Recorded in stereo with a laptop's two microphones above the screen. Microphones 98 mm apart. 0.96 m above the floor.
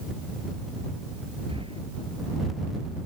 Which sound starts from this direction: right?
Breathing, at 1.5 s.